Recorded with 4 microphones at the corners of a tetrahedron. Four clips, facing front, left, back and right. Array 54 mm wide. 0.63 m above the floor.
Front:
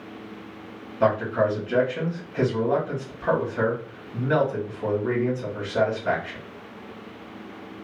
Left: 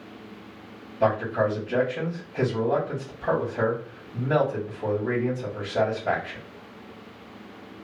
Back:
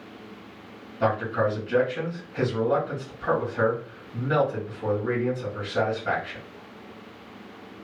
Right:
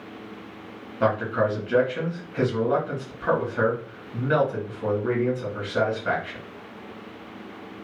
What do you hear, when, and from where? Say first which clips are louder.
1.0 s a man speaking: even, front 3 dB; 85° right, 1.8 m